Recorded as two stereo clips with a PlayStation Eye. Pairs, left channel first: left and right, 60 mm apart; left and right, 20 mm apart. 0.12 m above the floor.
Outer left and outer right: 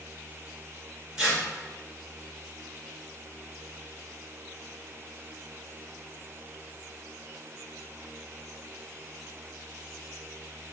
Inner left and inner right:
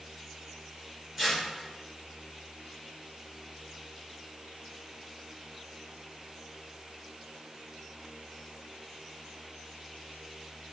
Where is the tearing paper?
10° right (ahead or behind), 1.7 m.